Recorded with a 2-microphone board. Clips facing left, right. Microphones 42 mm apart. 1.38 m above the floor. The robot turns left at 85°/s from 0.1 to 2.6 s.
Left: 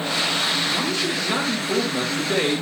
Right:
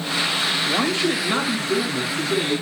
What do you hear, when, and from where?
0.7 s a man speaking: 130° right, 2 m; by 2.6 s 65° left, 2 m